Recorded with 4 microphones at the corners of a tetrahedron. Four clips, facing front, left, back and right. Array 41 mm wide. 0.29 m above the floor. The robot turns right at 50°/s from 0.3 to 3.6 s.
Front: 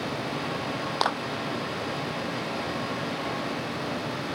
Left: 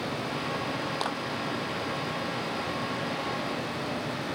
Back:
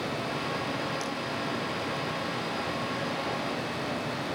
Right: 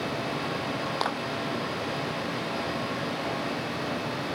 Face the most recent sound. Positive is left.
turn(degrees=125)